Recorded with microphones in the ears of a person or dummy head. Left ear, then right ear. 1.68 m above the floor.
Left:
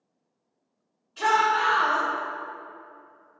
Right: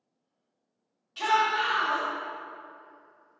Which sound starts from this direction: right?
A shout, at 1.2 s.